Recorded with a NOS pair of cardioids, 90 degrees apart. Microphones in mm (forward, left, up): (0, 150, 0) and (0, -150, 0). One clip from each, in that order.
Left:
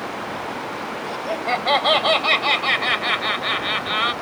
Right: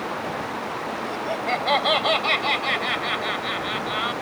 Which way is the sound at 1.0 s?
15° left.